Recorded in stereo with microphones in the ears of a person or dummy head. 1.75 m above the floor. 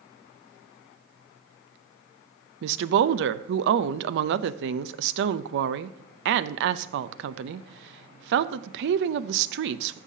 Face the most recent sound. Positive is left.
turn(degrees=-60)  # may be behind; listen again after turning